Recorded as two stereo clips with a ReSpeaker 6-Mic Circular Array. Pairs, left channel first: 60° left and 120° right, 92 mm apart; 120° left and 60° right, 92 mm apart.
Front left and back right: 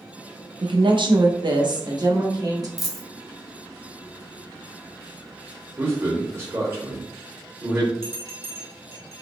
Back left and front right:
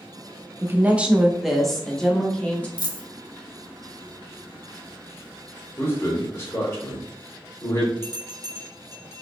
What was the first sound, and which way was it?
A woman speaking, 120° right.